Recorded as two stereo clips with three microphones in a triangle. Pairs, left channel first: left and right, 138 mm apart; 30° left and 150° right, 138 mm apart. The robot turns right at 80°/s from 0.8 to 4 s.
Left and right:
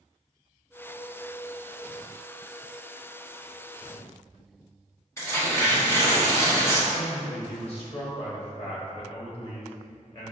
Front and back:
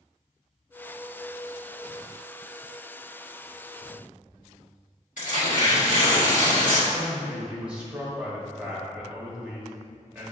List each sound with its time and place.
5.2 s tearing paper: 20° left, 1.3 m
6.9 s a man speaking: 130° left, 1.4 m